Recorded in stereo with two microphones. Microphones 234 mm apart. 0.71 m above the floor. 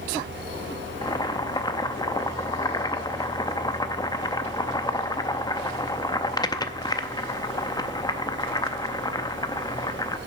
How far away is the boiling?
About 0.5 m.